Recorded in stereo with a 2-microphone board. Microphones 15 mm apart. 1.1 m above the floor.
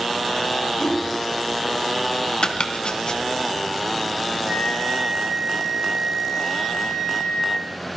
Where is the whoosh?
75° left (ahead or behind), 4.5 m.